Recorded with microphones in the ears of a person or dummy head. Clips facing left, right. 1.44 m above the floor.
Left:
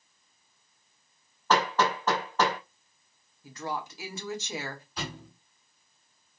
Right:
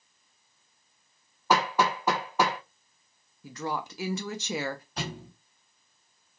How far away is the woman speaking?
About 0.7 m.